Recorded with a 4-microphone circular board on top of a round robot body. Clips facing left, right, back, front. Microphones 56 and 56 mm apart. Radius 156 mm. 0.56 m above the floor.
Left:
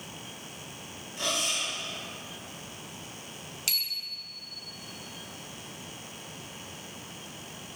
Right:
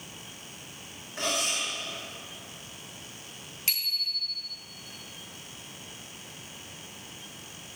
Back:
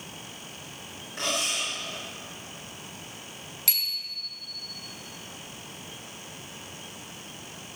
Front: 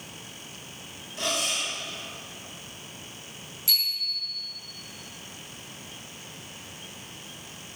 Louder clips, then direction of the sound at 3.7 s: Right 3 dB, front 5 dB; 150° right.